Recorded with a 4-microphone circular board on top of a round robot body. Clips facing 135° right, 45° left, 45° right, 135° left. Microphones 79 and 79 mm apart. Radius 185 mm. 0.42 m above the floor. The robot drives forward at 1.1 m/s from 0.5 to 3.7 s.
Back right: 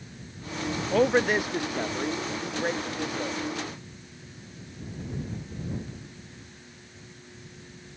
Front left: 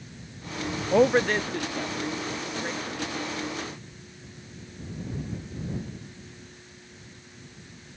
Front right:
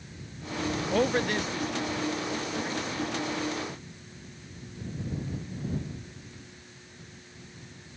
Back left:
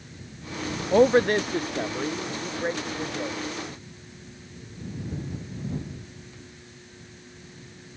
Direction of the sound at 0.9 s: 100° left.